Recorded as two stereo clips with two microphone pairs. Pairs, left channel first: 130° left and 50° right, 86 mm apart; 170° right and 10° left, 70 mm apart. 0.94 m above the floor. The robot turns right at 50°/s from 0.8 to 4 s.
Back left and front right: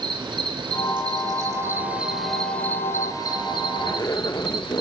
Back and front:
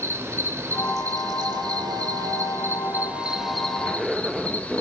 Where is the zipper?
80° left, 0.8 m; by 4.8 s 95° left, 0.8 m.